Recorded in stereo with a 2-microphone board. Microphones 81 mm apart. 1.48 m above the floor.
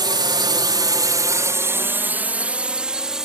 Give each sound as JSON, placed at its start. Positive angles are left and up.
{"t": 0.0, "sound": "a drone", "side_deg": -55}